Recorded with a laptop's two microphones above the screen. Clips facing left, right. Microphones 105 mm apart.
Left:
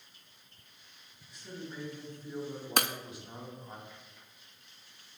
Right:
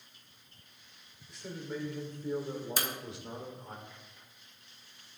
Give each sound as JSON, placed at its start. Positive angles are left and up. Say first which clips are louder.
{"t": 1.3, "sound": "a man speaking", "louder": "right 4 dB", "side_deg": -75, "distance_m": 3.5}
{"t": 2.8, "sound": "breaking glass", "louder": "left 10 dB", "side_deg": 65, "distance_m": 0.6}